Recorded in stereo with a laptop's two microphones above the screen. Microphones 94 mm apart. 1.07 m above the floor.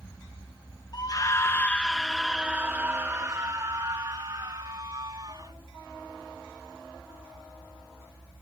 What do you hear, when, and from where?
0.9 s a scream: 45° left (ahead or behind); by 5.5 s 55° right (ahead or behind)